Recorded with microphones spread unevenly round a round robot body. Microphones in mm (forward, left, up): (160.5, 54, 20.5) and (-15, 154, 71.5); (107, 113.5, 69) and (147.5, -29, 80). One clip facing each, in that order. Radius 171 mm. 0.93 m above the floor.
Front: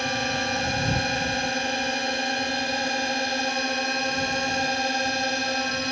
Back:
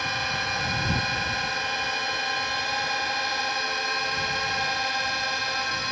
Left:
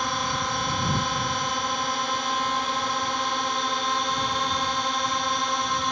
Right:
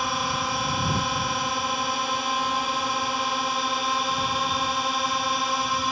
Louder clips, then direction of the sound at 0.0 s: Front 6 dB, even; 10° left.